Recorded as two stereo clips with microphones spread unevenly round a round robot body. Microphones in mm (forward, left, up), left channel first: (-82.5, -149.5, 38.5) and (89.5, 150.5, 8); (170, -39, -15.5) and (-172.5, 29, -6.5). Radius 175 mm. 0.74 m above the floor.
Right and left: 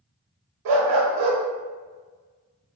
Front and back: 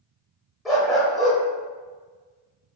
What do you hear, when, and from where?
0.7 s a dog barking: 80° left, 0.6 m